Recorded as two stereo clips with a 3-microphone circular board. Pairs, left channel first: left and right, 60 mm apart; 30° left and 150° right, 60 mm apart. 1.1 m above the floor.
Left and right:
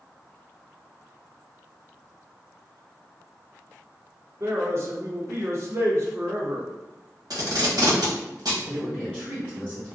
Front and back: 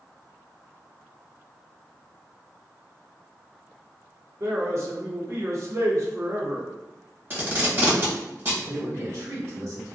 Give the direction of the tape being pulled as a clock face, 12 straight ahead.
3 o'clock.